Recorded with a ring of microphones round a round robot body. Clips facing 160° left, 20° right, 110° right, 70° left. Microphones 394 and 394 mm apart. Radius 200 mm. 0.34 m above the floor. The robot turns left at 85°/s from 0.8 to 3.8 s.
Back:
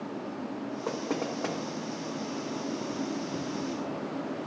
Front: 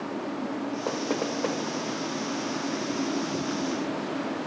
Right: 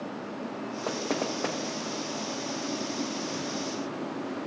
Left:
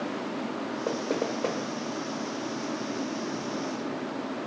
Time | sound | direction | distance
0.9 | knocking | 95° right | 1.0 m